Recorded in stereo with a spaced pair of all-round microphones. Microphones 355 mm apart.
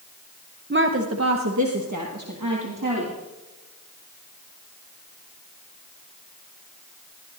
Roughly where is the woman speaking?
Right.